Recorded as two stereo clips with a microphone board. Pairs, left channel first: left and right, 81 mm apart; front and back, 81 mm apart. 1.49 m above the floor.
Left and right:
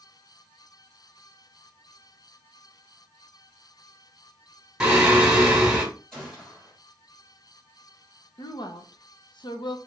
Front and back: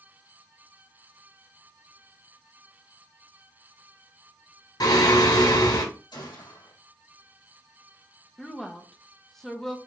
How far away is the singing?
About 1.8 m.